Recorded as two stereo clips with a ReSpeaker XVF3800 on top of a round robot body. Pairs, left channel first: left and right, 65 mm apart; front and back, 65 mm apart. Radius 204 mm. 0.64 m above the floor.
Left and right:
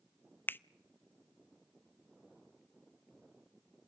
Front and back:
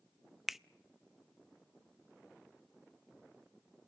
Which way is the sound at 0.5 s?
95° left.